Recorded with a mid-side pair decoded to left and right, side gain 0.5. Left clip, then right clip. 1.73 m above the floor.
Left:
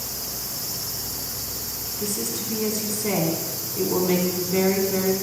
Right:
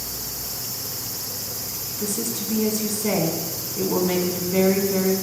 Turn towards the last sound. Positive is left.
turn(degrees=-5)